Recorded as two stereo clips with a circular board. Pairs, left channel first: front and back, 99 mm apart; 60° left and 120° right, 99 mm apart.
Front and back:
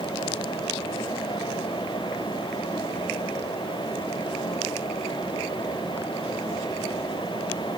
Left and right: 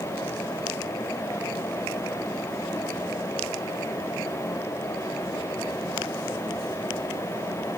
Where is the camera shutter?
I don't hear a camera shutter.